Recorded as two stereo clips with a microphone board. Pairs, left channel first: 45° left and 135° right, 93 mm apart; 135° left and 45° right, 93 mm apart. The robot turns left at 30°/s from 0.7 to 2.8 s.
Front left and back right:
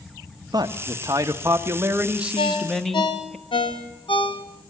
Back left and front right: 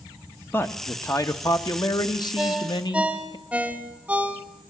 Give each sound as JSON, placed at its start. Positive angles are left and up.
{"t": 0.5, "sound": "a man speaking", "azimuth_deg": -165, "distance_m": 1.2}
{"t": 2.4, "sound": "a ringtone", "azimuth_deg": 45, "distance_m": 2.5}